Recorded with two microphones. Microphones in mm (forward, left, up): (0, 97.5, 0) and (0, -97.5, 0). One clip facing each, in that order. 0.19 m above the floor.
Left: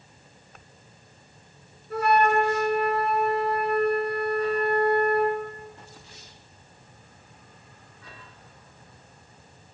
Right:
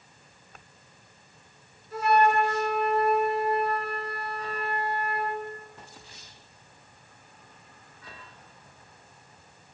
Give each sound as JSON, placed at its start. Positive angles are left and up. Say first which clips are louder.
{"t": 1.9, "sound": "a flute", "louder": "left 1 dB", "side_deg": 65, "distance_m": 3.5}